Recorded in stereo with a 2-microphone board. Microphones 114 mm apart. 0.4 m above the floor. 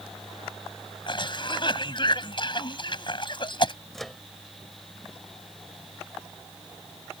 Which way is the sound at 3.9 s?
Centre (ahead or behind).